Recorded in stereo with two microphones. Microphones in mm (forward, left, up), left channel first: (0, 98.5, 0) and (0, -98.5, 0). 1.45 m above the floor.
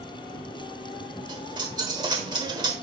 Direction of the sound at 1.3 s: 20° right (ahead or behind).